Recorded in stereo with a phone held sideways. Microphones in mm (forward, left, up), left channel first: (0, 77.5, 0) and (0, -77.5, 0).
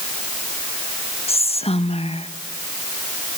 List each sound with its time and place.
1.3 s whispering: 40° left (ahead or behind), 1.1 m